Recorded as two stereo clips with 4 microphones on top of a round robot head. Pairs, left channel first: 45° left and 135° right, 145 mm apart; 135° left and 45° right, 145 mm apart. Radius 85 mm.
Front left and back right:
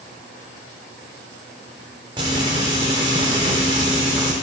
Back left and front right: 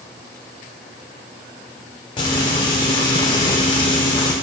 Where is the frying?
Straight behind, 0.8 m.